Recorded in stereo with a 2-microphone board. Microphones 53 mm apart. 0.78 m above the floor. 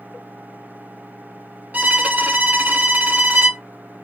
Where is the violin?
35° right (ahead or behind), 0.9 m.